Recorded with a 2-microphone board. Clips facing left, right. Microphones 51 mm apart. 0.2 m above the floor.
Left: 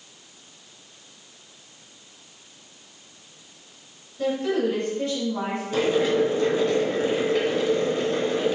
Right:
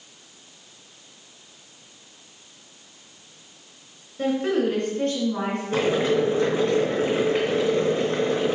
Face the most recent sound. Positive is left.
turn(degrees=-35)  # may be behind; listen again after turning